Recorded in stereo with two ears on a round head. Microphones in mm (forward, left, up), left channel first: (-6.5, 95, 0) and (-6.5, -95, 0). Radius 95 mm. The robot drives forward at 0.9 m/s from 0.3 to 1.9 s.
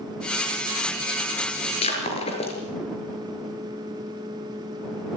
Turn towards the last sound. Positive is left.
turn(degrees=30)  # may be behind; listen again after turning